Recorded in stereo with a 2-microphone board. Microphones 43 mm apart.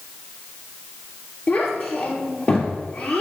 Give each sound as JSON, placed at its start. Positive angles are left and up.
{"t": 1.5, "sound": "a child speaking", "side_deg": 35, "distance_m": 3.0}